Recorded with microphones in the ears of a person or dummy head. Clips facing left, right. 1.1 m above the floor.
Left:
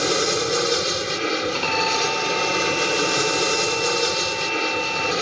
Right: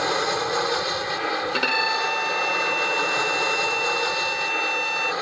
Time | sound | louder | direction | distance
0.0 | an aircraft | left 3 dB | 40° left (ahead or behind) | ?
1.5 | a violin | left 3 dB | 15° right (ahead or behind) | ?